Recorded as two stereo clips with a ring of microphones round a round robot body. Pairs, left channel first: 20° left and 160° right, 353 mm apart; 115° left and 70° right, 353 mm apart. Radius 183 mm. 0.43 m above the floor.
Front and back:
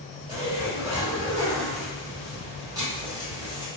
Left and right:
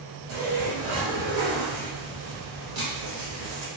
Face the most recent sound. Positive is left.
turn(degrees=-80)